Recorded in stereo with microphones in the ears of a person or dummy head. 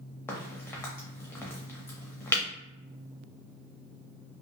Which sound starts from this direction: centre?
A crack, at 0.3 s.